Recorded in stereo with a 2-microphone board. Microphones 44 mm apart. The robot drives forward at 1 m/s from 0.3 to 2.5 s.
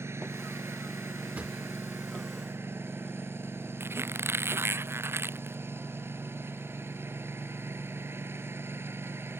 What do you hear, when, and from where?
0.0 s a lawn mower: 80° right; by 9.4 s 65° right (ahead or behind)
1.4 s a drawer: 30° right (ahead or behind); by 1.5 s 25° right (ahead or behind)
3.8 s a squeak: 65° right (ahead or behind)